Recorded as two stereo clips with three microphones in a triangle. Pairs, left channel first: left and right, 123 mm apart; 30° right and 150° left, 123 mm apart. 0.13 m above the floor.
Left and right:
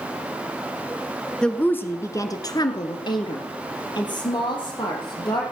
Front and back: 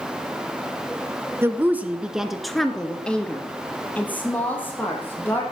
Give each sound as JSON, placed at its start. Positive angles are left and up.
{"t": 1.4, "sound": "a woman speaking", "azimuth_deg": 160, "distance_m": 1.3}